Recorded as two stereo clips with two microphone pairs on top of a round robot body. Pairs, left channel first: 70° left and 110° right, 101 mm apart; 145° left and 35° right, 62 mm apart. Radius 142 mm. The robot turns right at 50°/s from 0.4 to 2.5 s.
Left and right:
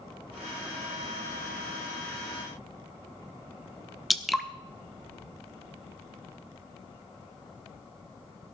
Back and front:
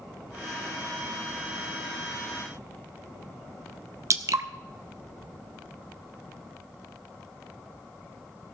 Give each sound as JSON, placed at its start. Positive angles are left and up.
{"t": 4.1, "sound": "dripping", "azimuth_deg": -20, "distance_m": 1.2}